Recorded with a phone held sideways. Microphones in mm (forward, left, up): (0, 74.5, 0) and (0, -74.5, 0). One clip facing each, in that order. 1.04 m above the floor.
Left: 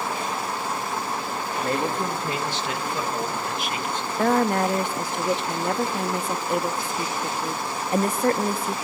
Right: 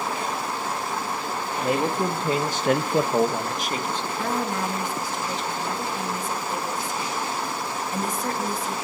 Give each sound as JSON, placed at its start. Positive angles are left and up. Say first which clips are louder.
{"t": 1.6, "sound": "a man speaking", "louder": "right 2 dB", "side_deg": -10, "distance_m": 1.9}
{"t": 4.2, "sound": "a woman speaking", "louder": "left 8 dB", "side_deg": 70, "distance_m": 1.2}